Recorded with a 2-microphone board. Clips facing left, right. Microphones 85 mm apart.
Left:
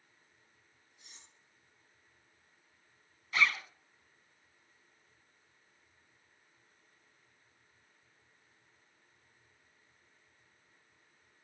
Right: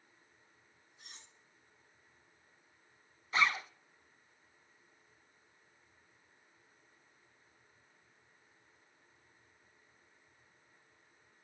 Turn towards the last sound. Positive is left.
turn(degrees=-30)  # may be behind; listen again after turning